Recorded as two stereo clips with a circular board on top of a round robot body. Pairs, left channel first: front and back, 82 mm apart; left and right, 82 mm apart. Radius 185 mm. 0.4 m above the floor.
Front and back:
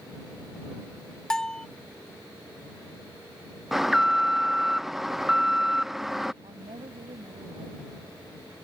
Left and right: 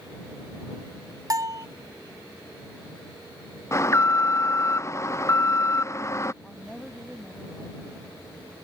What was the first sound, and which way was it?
A bell, 75° right.